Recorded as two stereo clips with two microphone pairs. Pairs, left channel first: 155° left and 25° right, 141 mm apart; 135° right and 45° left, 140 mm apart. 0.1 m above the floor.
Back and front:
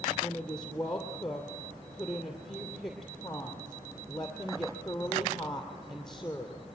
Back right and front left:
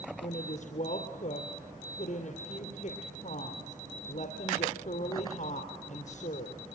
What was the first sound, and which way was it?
A woman speaking, 120° right.